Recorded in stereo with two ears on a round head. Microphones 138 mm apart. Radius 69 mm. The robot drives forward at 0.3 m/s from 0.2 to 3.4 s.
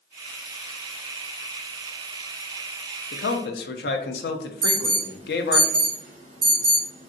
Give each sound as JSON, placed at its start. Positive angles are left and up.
{"t": 3.1, "sound": "a man speaking", "side_deg": 75, "distance_m": 0.5}
{"t": 4.6, "sound": "an alarm", "side_deg": -40, "distance_m": 1.4}